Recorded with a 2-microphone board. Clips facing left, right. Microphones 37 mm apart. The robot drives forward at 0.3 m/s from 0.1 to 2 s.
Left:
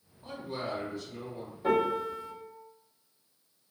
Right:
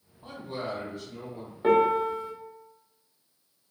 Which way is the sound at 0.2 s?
45° right (ahead or behind).